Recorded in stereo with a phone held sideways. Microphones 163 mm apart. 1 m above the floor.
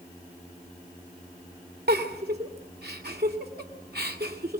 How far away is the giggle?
About 2.5 m.